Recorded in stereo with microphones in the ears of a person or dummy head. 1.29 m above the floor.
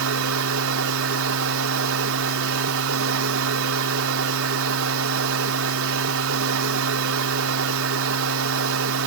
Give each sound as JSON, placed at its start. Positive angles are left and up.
{"t": 0.0, "sound": "a machine running", "side_deg": -75}